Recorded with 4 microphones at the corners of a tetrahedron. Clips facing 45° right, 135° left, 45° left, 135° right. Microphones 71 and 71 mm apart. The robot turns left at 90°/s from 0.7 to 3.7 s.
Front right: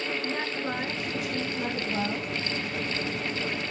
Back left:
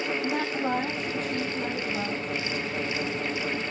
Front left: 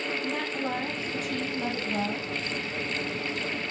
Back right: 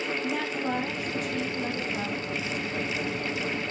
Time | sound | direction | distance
0.2 | a woman speaking | 130° left | 3.5 m